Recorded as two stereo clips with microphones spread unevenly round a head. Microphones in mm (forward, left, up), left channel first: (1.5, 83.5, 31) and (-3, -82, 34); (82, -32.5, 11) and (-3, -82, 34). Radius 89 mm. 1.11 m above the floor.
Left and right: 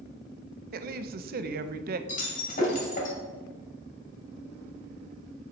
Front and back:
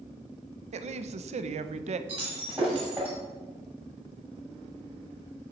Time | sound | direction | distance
0.7 | a woman speaking | 130° right | 0.5 m
2.1 | breaking glass | 135° left | 1.8 m